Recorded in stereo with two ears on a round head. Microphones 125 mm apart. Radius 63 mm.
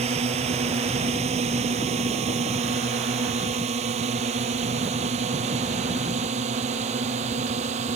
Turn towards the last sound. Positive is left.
turn(degrees=-55)  # may be behind; listen again after turning